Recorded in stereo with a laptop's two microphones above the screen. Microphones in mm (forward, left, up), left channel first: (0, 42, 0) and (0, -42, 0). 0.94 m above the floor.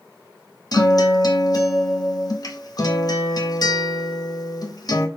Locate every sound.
0.7 s a guitar: 50° left (ahead or behind), 0.6 m